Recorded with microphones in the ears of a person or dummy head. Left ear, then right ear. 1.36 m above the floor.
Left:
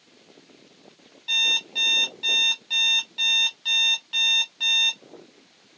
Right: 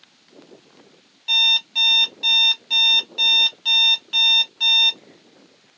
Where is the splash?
I don't hear a splash.